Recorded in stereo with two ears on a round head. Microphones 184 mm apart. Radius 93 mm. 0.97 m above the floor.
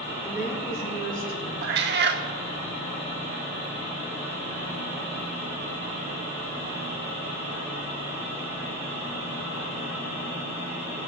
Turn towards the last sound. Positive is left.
turn(degrees=-50)  # may be behind; listen again after turning